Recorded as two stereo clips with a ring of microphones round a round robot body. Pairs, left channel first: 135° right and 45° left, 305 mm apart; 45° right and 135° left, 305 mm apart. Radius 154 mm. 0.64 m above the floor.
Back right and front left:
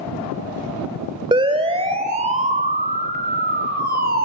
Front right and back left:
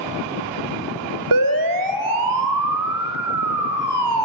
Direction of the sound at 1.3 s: 120° left.